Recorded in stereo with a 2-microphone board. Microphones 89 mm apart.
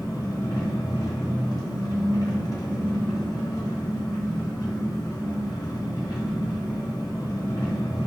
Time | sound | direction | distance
0.0 | an engine running | 45° left (ahead or behind) | 0.9 m